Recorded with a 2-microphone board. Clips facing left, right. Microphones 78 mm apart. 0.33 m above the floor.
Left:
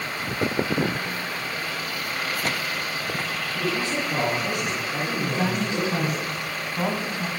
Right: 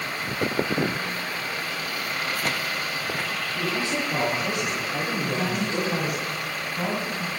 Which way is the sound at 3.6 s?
15° right (ahead or behind).